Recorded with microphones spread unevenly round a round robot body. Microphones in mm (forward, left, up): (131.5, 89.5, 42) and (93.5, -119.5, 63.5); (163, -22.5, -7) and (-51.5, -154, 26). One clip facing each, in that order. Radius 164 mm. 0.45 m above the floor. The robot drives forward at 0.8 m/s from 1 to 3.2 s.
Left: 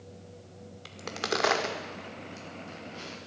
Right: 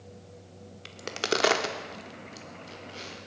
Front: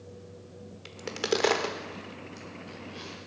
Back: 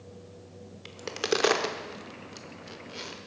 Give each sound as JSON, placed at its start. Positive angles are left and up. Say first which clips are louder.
{"t": 0.8, "sound": "a crack", "louder": "right 3 dB, even", "azimuth_deg": -40, "distance_m": 1.2}